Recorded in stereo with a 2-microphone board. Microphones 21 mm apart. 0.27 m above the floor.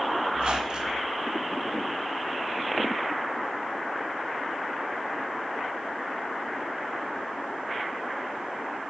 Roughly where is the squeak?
Right.